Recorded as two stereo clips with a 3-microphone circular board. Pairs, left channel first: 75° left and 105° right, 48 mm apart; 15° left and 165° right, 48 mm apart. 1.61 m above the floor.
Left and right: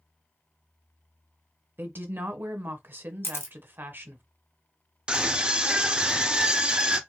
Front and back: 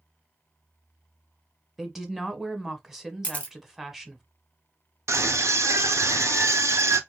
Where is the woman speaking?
85° right, 0.8 m.